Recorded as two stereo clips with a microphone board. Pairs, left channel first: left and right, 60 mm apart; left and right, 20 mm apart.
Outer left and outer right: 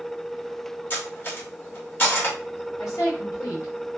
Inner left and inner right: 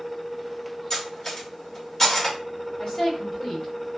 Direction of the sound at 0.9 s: 35° left (ahead or behind).